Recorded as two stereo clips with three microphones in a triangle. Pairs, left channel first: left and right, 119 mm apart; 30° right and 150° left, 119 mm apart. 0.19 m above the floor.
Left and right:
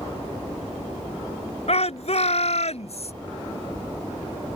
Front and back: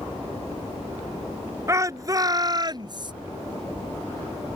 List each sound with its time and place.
1.7 s a shout: 90° left; by 3.1 s 105° left